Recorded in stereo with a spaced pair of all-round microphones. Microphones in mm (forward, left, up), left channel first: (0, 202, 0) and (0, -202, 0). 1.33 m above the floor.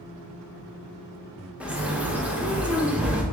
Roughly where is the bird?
Centre.